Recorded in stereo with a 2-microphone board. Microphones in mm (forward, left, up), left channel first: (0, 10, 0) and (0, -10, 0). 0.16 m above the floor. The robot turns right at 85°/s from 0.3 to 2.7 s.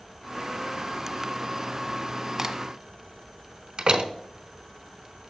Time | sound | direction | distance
2.4 | a crack | 30° right (ahead or behind) | 0.8 m
3.8 | a door slam | 45° right (ahead or behind) | 1.0 m